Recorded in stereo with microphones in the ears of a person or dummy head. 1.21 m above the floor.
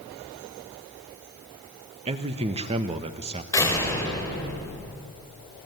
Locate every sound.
2.1 s a man speaking: 30° right (ahead or behind), 1.3 m
3.5 s a door slam: 15° left (ahead or behind), 4 m